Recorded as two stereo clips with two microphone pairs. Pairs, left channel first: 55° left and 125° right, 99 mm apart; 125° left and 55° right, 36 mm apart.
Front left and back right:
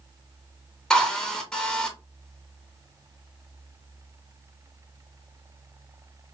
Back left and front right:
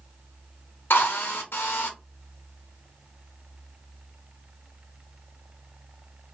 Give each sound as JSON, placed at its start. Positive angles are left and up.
{"t": 0.9, "sound": "a drill", "azimuth_deg": 135, "distance_m": 0.7}